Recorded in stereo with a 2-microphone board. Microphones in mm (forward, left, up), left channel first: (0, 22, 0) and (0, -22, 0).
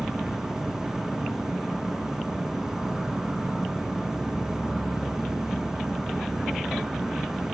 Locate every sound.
0.0 s an insect: 15° right (ahead or behind), 1.2 m